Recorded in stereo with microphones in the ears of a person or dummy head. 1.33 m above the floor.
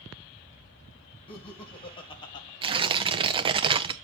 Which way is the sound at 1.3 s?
30° left (ahead or behind).